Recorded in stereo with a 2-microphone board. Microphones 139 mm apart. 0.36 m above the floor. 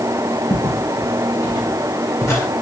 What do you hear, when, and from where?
0.5 s footsteps: 30° left (ahead or behind), 6 m; by 2.5 s 15° left (ahead or behind), 6.5 m